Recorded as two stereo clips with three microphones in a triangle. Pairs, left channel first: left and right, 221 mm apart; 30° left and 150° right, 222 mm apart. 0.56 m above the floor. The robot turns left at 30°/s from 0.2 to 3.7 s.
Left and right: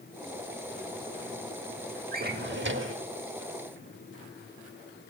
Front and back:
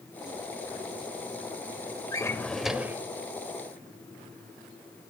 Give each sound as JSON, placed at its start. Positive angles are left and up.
{"t": 2.1, "sound": "a drawer", "azimuth_deg": -45, "distance_m": 0.7}